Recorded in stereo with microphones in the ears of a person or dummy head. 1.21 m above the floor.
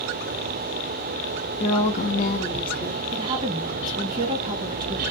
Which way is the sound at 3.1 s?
30° right (ahead or behind).